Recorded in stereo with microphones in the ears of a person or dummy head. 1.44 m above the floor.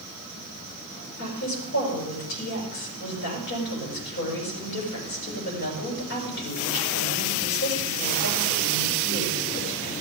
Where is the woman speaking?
70° left (ahead or behind), 6.5 m.